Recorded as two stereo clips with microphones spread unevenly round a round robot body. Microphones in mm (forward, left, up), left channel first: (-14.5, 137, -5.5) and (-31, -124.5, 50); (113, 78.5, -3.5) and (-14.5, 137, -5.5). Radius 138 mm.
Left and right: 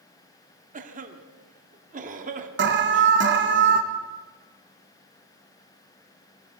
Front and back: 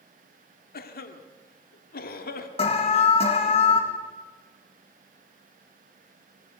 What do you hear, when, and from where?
0.7 s a cough: 30° right, 1.8 m
2.6 s an alarm: 50° right, 1.8 m